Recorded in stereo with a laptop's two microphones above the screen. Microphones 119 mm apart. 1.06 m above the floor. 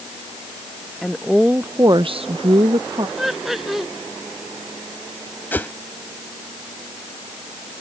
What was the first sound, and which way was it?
A woman speaking, centre (ahead or behind).